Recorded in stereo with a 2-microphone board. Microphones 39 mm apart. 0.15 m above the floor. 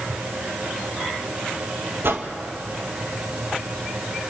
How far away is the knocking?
I don't hear knocking.